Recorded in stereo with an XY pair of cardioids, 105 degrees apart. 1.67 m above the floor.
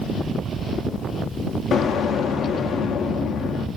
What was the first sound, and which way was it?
An explosion, 65° left.